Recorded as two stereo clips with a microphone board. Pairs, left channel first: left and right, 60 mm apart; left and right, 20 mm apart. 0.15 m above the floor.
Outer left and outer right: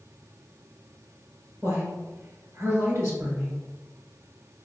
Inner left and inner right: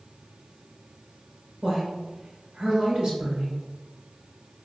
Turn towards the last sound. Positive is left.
turn(degrees=-55)  # may be behind; listen again after turning